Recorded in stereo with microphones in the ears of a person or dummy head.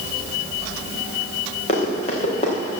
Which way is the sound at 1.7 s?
45° left (ahead or behind).